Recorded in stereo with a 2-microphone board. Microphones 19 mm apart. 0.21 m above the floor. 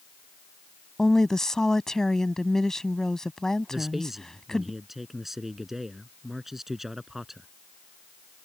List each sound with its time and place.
1.0 s a woman speaking: 35° left (ahead or behind)
3.7 s a man speaking: 20° right (ahead or behind)